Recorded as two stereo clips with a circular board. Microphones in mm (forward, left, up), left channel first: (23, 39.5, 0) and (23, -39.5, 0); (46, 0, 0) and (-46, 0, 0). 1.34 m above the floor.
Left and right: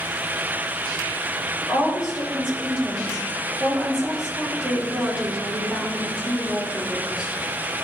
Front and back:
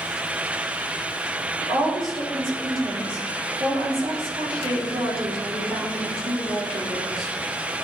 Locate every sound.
1.6 s a woman speaking: 165° right, 3.5 m